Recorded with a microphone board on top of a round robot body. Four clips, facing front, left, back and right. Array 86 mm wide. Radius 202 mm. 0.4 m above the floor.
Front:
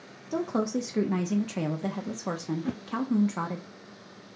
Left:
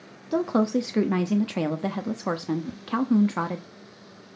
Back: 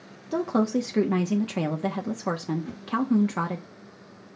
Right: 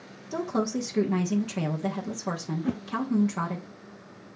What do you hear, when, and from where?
0.3 s a woman speaking: 115° left, 1.3 m
2.6 s a whoosh: 55° right, 0.5 m